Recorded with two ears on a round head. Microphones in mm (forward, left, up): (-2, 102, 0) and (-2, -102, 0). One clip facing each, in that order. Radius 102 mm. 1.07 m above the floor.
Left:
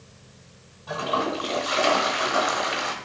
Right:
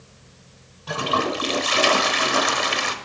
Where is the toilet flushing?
40° right (ahead or behind), 1.1 m.